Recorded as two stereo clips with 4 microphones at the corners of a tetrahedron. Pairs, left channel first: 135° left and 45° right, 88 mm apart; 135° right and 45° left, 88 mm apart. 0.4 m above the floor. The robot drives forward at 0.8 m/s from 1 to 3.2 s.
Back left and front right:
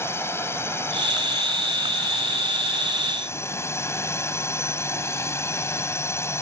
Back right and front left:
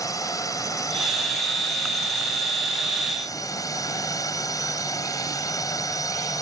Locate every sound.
0.0 s a drone: 170° right